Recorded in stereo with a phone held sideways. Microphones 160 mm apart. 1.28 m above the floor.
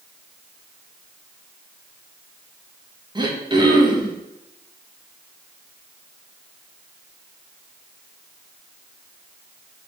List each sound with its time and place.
3.1 s throat clearing: 30° right (ahead or behind), 0.5 m